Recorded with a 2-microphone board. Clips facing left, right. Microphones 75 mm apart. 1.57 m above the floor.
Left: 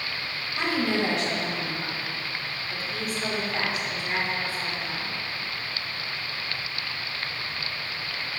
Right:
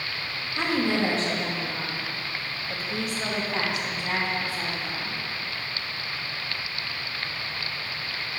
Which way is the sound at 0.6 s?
25° right (ahead or behind).